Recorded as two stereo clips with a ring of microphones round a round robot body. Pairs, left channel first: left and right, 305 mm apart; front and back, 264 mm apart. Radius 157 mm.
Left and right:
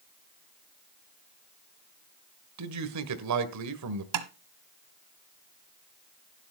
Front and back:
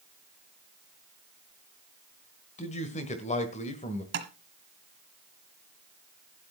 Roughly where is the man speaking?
Ahead right.